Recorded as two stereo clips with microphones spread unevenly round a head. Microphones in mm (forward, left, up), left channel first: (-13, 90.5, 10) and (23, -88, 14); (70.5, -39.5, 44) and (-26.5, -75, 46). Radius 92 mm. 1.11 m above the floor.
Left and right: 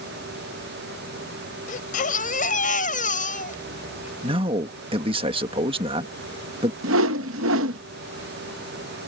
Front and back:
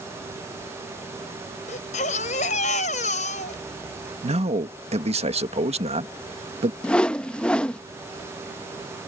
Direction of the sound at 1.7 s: 50° left.